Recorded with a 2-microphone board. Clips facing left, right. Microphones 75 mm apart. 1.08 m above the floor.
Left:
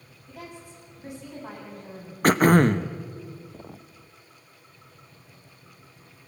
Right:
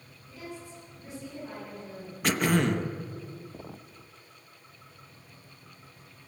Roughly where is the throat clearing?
Left.